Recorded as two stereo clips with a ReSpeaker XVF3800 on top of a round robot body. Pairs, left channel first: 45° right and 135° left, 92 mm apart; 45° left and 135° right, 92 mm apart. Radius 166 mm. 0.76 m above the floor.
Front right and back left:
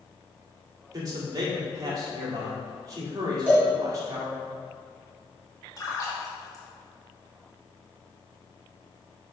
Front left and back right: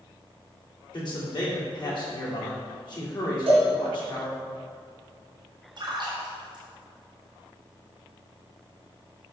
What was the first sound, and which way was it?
A man speaking, 85° left.